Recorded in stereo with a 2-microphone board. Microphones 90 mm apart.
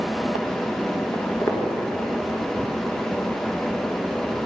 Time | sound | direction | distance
1.1 | footsteps | 30° left (ahead or behind) | 2 m